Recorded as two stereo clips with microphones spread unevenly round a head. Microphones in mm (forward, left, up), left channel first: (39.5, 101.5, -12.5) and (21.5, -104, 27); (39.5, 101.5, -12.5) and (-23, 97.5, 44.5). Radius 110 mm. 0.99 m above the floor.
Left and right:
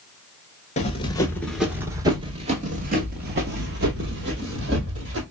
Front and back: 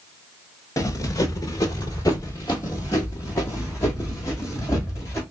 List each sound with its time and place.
0.8 s running footsteps: 100° left, 1.0 m; by 5.2 s 85° right, 2.5 m